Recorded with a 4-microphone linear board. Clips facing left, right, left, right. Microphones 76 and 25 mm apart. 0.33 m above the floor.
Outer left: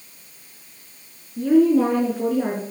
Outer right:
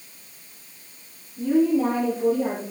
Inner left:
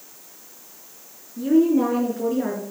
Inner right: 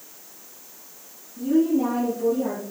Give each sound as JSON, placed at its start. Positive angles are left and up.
{"t": 1.4, "sound": "a woman speaking", "side_deg": 65, "distance_m": 4.0}